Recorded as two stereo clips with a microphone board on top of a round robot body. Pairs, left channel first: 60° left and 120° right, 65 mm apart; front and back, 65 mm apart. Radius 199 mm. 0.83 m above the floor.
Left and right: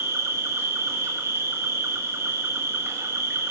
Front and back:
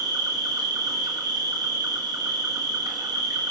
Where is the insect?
170° right, 1.3 m.